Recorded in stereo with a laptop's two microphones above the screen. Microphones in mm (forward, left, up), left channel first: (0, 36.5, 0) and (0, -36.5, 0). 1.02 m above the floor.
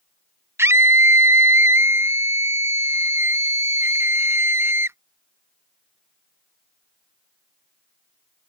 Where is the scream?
35° right (ahead or behind).